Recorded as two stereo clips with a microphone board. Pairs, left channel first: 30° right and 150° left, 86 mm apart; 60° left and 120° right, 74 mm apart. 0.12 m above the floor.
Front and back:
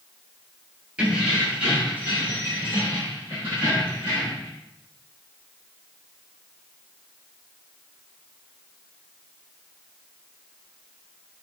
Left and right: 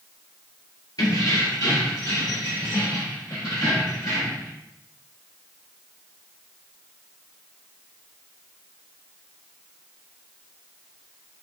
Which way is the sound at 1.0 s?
75° left.